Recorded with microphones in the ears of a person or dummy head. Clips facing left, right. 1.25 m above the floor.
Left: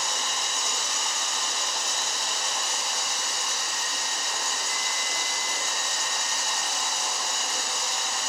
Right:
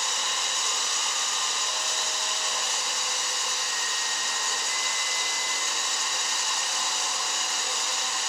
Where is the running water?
40° left (ahead or behind), 3.5 m.